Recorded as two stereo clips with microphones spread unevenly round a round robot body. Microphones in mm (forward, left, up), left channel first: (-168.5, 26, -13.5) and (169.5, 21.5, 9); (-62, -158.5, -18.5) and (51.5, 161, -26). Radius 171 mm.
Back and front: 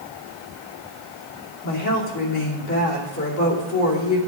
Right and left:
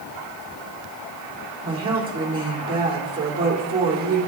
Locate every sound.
1.6 s a woman speaking: 145° left, 2.5 m